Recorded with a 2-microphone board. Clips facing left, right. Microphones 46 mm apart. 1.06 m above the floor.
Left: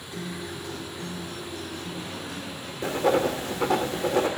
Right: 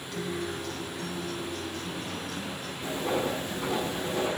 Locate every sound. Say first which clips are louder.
0.1 s a guitar: right 2 dB; 15° left (ahead or behind), 8.5 m
2.8 s writing: left 7 dB; 75° left (ahead or behind), 2.5 m